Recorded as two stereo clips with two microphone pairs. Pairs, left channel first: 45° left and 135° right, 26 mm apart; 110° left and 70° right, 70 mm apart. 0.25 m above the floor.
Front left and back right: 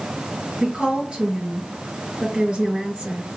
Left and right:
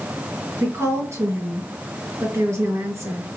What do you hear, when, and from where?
0.6 s a woman speaking: 100° right, 1.9 m